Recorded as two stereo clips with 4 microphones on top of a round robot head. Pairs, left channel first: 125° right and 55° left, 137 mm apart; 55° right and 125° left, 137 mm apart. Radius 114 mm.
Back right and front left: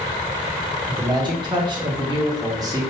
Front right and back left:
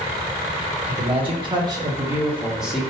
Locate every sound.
0.9 s a man speaking: 100° left, 1.7 m; by 2.9 s 30° left, 1.3 m